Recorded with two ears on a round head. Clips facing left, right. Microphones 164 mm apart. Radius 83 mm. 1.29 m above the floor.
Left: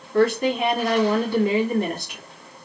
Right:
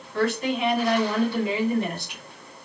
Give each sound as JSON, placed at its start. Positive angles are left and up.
{"t": 0.1, "sound": "a woman speaking", "side_deg": 45, "distance_m": 2.5}